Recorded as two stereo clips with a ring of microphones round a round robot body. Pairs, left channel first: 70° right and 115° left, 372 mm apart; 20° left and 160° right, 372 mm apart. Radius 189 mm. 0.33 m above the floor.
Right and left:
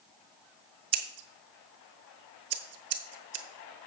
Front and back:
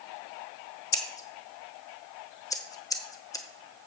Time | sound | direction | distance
0.9 | scissors | 100° left | 1.1 m